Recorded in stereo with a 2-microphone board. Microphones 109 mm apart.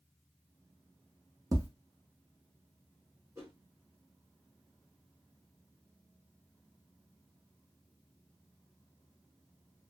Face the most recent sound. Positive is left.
turn(degrees=-30)  # may be behind; listen again after turning